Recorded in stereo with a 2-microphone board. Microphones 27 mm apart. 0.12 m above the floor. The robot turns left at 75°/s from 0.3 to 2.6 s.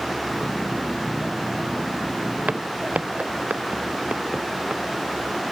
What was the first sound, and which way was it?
Footsteps, 75° right (ahead or behind).